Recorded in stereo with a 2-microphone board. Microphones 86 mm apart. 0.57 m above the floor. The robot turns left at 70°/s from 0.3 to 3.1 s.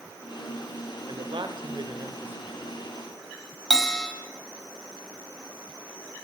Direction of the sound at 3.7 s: 5° left (ahead or behind).